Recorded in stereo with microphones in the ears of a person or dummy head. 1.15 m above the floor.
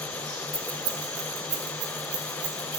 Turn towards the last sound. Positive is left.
turn(degrees=-70)  # may be behind; listen again after turning